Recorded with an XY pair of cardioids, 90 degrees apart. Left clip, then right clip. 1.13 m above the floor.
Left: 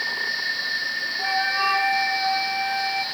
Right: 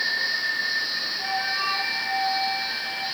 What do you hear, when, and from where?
1.2 s a flute: 45° left, 1.3 m